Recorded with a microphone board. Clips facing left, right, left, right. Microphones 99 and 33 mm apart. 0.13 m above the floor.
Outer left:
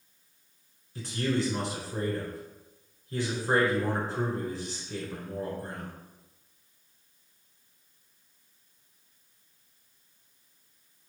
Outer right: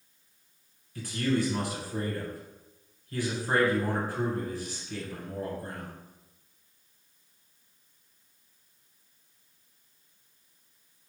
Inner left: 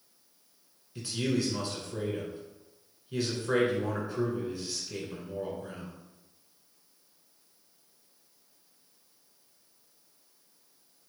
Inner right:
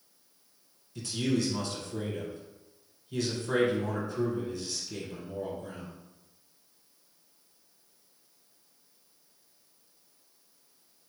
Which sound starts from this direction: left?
A man speaking, at 0.9 s.